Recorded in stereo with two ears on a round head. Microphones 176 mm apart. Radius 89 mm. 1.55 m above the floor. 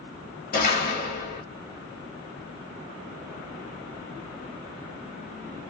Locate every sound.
0.5 s a door slam: 45° left (ahead or behind), 1.2 m